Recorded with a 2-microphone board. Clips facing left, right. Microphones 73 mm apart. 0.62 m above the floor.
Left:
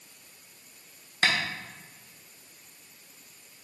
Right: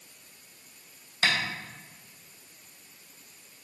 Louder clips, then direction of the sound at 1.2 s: Left 1 dB; 50° left (ahead or behind).